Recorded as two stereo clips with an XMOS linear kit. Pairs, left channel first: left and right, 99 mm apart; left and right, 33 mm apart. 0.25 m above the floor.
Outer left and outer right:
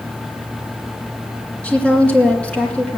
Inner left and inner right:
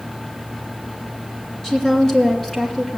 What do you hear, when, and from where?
1.6 s a woman speaking: 10° left (ahead or behind), 2.5 m